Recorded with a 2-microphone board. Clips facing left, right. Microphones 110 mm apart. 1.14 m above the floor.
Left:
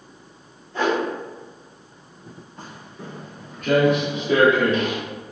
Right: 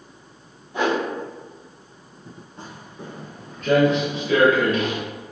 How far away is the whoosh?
About 0.7 m.